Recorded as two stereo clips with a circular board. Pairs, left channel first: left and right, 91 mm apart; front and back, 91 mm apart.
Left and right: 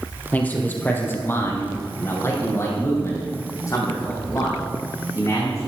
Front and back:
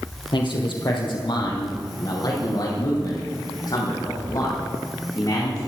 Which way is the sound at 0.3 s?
20° left.